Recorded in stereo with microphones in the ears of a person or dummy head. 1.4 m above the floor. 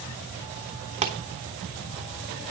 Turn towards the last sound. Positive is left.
turn(degrees=-30)  # may be behind; listen again after turning